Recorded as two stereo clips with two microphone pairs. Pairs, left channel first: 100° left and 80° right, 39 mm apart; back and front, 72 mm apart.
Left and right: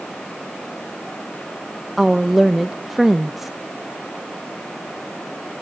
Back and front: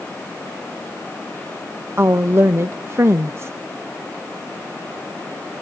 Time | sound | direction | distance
2.0 | a woman speaking | 5° right | 0.7 m